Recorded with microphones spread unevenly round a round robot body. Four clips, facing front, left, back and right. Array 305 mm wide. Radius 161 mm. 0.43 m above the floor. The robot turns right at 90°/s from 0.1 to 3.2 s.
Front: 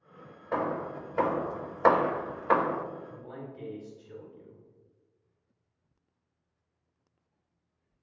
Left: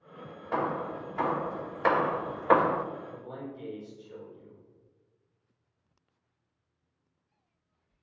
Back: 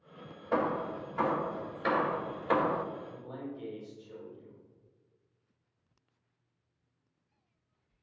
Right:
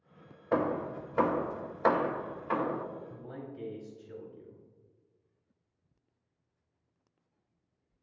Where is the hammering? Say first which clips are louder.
Right 1 dB, even; 110° right, 0.6 m; by 2.8 s 100° left, 0.6 m.